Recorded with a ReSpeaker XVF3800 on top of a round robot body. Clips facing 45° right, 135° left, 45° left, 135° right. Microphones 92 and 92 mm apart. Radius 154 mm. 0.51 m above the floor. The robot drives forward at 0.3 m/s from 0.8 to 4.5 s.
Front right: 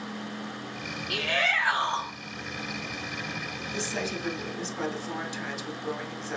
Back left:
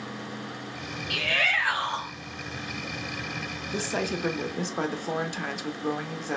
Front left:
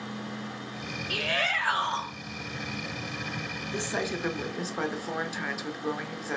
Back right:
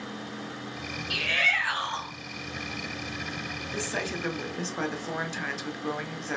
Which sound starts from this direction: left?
A woman speaking, at 3.7 s.